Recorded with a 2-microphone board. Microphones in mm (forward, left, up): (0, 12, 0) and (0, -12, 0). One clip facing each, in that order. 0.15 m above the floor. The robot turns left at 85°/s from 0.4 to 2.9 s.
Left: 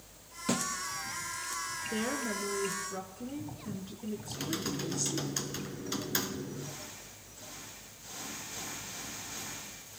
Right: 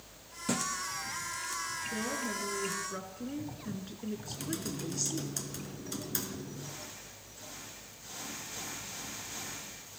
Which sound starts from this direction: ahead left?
A woman speaking, at 1.9 s.